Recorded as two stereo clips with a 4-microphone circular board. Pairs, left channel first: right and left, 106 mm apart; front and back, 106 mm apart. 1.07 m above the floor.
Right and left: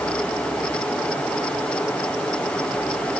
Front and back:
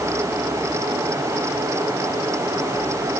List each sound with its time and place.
Only background noise.